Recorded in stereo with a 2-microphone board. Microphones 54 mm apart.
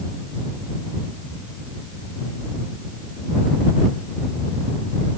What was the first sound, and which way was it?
Only background noise.